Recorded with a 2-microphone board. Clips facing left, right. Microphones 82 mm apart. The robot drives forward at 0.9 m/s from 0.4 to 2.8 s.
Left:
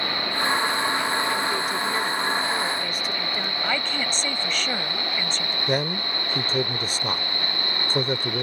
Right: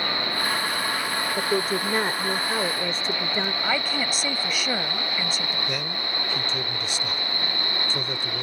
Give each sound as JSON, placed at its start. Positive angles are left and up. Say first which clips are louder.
{"t": 1.4, "sound": "a woman speaking", "louder": "right 1 dB", "side_deg": -40}
{"t": 3.6, "sound": "a woman speaking", "louder": "right 1 dB", "side_deg": -10}
{"t": 5.7, "sound": "a man speaking", "louder": "left 6 dB", "side_deg": 40}